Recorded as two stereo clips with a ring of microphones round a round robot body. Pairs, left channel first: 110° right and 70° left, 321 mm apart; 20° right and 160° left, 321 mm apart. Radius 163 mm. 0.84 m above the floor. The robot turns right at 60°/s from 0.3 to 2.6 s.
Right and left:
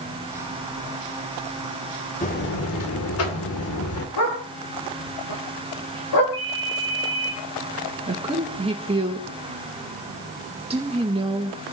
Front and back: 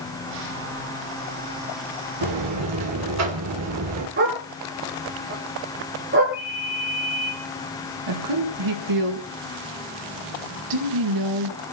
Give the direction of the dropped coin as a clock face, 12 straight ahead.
No dropped coin in this recording.